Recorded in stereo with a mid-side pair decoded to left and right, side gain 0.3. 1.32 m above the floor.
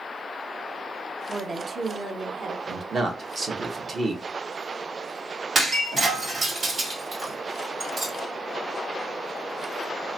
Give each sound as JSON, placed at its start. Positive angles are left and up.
{"t": 1.3, "sound": "a woman speaking", "azimuth_deg": -50, "distance_m": 0.7}
{"t": 2.7, "sound": "a man speaking", "azimuth_deg": -55, "distance_m": 1.2}
{"t": 5.5, "sound": "breaking glass", "azimuth_deg": -65, "distance_m": 1.9}